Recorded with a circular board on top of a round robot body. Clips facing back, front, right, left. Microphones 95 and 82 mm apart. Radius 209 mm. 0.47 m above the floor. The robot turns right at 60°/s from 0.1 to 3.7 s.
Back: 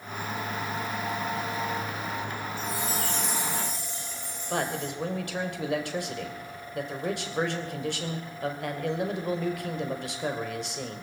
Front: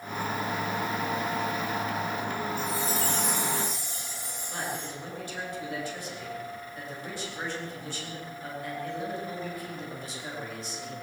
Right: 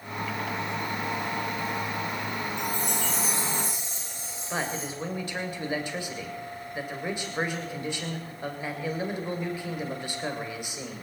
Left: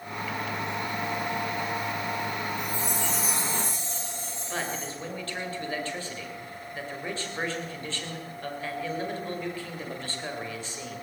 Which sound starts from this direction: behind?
A man speaking, at 4.5 s.